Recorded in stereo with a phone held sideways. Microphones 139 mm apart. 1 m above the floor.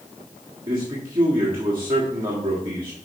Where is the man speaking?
30° right (ahead or behind), 1.5 m.